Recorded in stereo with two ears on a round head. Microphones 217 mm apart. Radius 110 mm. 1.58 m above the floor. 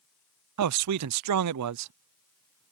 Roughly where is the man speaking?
Right.